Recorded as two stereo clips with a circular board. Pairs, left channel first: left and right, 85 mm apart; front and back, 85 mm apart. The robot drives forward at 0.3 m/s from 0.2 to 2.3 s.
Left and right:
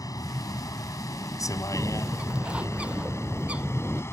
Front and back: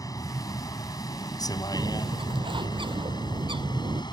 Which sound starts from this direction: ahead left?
A vehicle, at 0.0 s.